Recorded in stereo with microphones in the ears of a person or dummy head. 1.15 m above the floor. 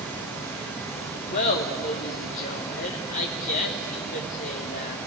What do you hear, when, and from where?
1.3 s laughter: 45° left (ahead or behind), 1.3 m